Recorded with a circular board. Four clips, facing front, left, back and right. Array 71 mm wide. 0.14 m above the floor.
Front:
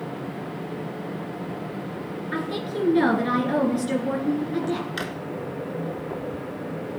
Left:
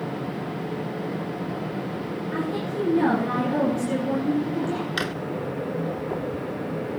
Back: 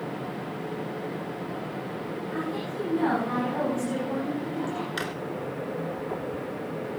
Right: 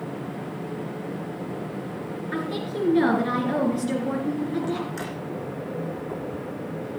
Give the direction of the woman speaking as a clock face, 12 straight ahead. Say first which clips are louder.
Left 1 dB, front 4 dB; 1 o'clock.